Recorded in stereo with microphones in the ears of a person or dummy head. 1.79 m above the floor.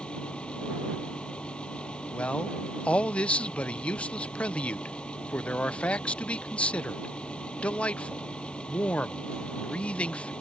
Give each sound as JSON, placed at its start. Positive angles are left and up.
{"t": 0.0, "sound": "a fan", "side_deg": 5}
{"t": 2.1, "sound": "a man speaking", "side_deg": 5}